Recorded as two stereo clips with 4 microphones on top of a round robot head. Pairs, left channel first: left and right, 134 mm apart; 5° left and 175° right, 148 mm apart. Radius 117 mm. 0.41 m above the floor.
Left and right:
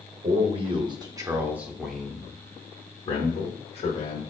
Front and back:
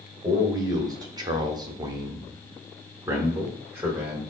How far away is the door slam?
No door slam in this recording.